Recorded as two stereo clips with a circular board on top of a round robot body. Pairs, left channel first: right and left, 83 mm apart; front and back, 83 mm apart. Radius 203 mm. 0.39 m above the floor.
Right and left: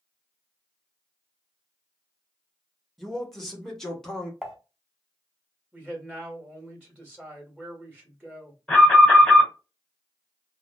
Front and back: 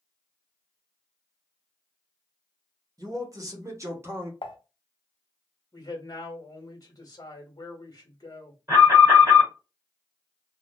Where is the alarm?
160° right, 2.5 m.